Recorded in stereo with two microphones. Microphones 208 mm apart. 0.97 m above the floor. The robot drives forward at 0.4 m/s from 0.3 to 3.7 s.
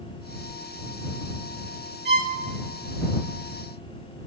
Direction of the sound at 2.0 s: 55° right (ahead or behind).